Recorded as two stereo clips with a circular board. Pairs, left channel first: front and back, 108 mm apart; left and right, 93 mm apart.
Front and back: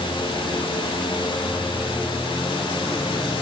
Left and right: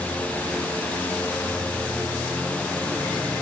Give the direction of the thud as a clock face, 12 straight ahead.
I don't hear a thud.